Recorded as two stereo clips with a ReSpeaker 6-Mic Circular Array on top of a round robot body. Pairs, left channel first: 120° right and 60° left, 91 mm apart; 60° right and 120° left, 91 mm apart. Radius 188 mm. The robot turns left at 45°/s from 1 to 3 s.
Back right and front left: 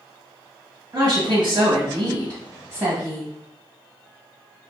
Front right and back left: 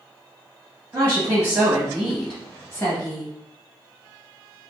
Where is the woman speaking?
90° left, 1.6 m; by 3.3 s straight ahead, 1.6 m.